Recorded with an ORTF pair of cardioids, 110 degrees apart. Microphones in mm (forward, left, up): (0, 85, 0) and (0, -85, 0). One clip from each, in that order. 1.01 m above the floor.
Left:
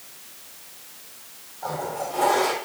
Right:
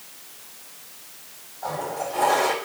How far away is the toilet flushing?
About 3.5 m.